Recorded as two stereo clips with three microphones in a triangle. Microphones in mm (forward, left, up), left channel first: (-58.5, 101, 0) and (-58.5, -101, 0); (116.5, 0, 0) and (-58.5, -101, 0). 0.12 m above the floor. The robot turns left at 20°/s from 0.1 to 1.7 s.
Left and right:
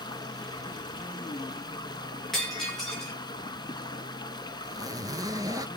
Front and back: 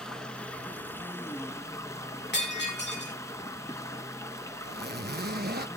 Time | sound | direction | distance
0.0 | running water | 110° left | 0.9 m
2.3 | breaking glass | straight ahead | 6.5 m
4.6 | a zipper | 160° right | 0.7 m